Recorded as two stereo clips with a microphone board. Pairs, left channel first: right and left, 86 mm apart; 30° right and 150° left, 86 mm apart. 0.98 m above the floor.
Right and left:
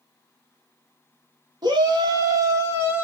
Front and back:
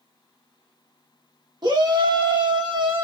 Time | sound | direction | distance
1.6 | a shout | 120° left | 1.2 m